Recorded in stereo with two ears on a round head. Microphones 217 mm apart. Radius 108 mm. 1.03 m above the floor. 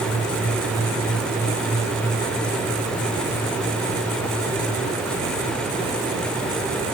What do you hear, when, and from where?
Only background noise.